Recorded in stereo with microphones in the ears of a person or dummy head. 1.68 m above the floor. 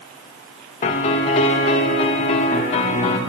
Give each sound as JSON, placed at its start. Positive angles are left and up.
{"t": 0.8, "sound": "a piano", "side_deg": 30, "distance_m": 1.0}